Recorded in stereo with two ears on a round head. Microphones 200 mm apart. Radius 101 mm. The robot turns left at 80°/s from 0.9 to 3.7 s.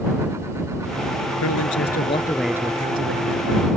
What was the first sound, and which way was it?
A man speaking, 85° left.